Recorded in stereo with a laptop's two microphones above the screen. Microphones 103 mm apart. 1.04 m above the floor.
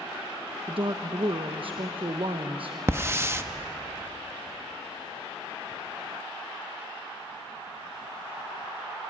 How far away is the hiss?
About 0.6 m.